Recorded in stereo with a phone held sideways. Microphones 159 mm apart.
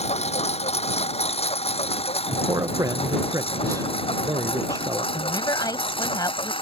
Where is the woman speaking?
25° left (ahead or behind).